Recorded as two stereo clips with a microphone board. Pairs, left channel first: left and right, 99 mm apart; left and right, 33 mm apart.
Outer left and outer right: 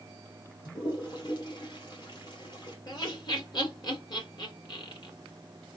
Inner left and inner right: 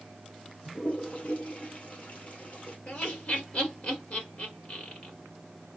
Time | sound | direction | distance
0.7 | a toilet flushing | 45° left (ahead or behind) | 1.7 m
2.9 | laughter | 45° left (ahead or behind) | 2.5 m